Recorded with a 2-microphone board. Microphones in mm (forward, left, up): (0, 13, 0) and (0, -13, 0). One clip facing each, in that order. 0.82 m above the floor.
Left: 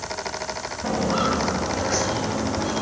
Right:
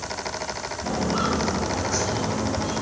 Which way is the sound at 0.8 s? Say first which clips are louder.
Left 2 dB; 75° left (ahead or behind).